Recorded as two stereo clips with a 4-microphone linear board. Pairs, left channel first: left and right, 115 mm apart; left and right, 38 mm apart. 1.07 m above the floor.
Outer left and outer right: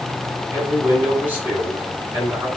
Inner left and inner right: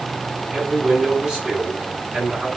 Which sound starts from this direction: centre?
A man speaking, at 0.5 s.